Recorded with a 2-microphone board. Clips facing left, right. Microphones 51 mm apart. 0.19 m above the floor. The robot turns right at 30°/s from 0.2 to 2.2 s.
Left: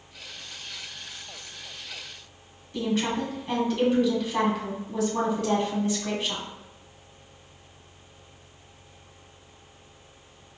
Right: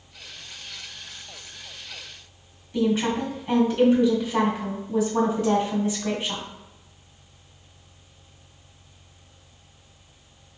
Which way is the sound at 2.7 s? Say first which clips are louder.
Right 4 dB; 10° right (ahead or behind).